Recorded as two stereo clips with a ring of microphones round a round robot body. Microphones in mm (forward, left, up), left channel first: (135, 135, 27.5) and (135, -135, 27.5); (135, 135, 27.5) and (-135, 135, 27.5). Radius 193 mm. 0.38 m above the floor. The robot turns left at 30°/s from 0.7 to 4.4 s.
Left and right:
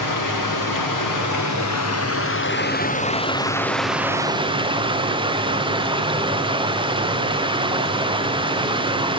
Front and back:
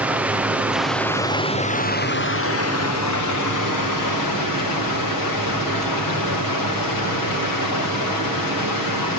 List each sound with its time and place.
0.0 s running water: 95° left, 4 m; by 9.2 s 15° right, 4 m